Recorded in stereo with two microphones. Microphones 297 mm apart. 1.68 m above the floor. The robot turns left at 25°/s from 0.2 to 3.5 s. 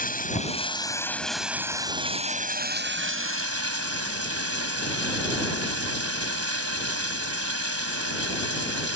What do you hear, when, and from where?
0.0 s running water: 30° left; by 9.0 s 55° right